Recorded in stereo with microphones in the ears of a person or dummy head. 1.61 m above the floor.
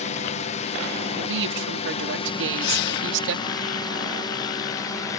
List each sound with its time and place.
0.0 s a drone: 35° left (ahead or behind); by 5.2 s 20° left (ahead or behind)
1.1 s a woman speaking: 75° right (ahead or behind)
2.6 s breathing: 60° left (ahead or behind)